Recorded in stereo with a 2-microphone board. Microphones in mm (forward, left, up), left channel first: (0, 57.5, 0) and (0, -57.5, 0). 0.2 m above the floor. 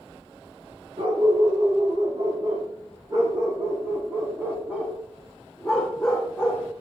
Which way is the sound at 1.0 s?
55° right (ahead or behind).